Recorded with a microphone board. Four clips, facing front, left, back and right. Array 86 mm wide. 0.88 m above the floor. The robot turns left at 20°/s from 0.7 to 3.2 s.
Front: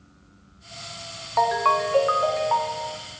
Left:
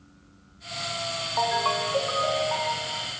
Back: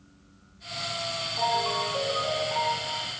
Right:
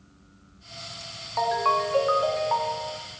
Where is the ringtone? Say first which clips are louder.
Right 2 dB, front 7 dB; straight ahead, 0.8 m; by 3.0 s 35° right, 0.8 m.